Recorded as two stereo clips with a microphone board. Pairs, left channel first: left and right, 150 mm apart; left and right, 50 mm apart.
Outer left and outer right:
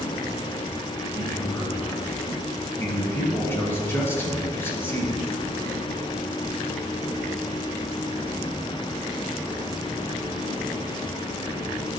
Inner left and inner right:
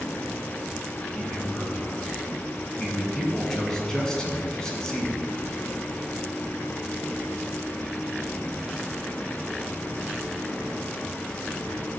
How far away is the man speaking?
About 1.9 m.